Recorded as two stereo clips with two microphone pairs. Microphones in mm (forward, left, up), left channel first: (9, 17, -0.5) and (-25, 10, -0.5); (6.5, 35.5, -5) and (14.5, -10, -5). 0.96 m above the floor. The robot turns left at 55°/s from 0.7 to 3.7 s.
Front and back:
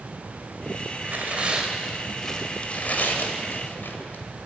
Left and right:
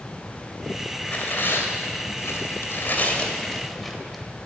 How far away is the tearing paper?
About 2.0 m.